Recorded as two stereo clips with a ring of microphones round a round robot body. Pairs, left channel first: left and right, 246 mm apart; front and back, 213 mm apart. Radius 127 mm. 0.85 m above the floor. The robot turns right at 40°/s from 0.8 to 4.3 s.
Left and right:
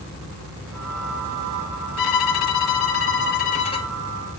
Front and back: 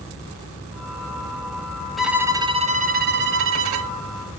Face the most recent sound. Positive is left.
turn(degrees=-175)